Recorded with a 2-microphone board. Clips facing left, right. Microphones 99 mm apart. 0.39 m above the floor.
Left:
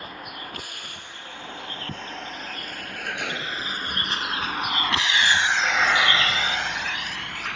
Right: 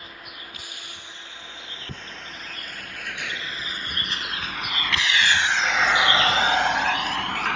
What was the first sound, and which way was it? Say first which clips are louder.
A vehicle: left 5 dB; 60° left (ahead or behind).